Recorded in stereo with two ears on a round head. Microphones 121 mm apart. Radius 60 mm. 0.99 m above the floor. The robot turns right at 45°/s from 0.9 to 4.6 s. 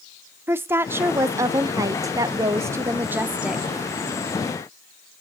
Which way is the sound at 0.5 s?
15° right (ahead or behind).